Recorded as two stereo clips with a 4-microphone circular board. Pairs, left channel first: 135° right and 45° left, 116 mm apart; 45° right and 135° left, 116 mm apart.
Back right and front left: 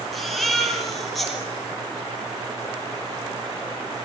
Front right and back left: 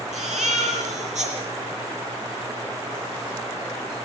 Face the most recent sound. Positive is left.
turn(degrees=135)